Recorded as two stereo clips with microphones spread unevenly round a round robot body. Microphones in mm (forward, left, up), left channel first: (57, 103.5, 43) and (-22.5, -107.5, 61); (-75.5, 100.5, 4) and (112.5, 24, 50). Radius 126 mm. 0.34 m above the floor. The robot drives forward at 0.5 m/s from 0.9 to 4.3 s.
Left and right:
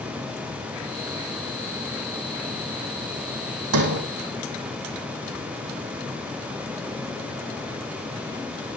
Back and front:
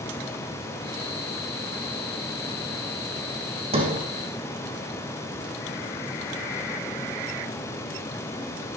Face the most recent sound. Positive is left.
turn(degrees=-95)